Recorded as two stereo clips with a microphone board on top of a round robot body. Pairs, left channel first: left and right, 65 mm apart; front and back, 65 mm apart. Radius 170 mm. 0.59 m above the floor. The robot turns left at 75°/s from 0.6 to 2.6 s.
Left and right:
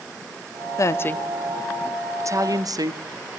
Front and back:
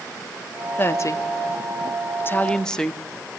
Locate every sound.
0.8 s a woman speaking: 55° left, 1.2 m; by 3.0 s 80° right, 1.2 m